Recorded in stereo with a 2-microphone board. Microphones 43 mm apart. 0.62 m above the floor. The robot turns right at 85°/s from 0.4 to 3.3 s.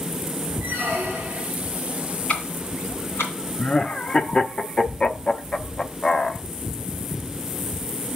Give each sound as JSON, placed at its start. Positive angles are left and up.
{"t": 0.6, "sound": "a squeak", "azimuth_deg": -140, "distance_m": 3.0}
{"t": 2.3, "sound": "ticking", "side_deg": 25, "distance_m": 2.5}
{"t": 3.6, "sound": "laughter", "side_deg": 25, "distance_m": 0.9}